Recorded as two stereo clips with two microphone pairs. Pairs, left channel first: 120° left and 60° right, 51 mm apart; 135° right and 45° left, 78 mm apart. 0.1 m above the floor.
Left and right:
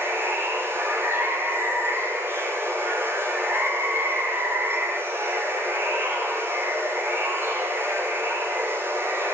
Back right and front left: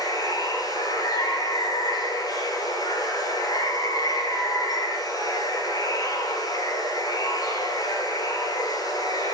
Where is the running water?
100° right, 8.5 m.